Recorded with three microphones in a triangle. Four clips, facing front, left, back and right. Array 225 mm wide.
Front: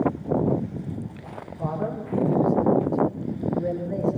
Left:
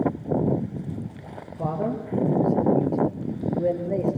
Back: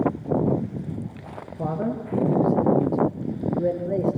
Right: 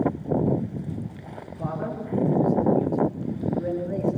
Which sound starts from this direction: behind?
A man speaking, at 1.6 s.